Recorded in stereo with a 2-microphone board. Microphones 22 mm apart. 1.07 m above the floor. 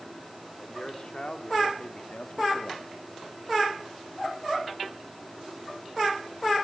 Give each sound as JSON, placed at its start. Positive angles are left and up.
{"t": 0.6, "sound": "a man speaking", "side_deg": 30, "distance_m": 2.5}